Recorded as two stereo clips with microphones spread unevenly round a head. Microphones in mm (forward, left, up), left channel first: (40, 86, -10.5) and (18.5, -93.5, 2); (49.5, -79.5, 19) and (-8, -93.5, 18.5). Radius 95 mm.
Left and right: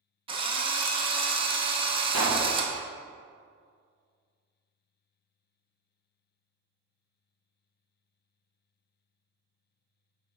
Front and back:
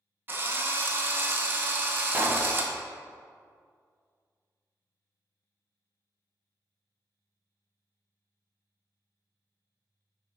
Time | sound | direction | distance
0.3 | a drill | 135° right | 0.6 m
2.1 | a pop | 110° right | 1.1 m